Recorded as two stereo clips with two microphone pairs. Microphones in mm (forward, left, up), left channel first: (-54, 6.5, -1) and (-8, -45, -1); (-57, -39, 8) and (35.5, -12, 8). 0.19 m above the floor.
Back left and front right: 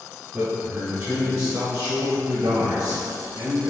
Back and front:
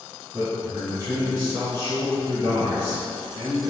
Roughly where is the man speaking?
Ahead right.